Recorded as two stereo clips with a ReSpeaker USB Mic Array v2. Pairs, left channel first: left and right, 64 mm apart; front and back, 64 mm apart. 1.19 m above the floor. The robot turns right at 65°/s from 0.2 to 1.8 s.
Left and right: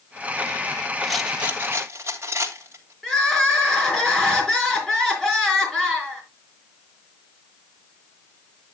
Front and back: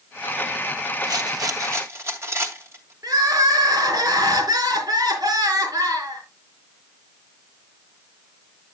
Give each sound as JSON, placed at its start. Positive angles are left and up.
{"t": 1.0, "sound": "a rattle", "azimuth_deg": 175, "distance_m": 2.5}
{"t": 3.0, "sound": "crying", "azimuth_deg": 170, "distance_m": 4.5}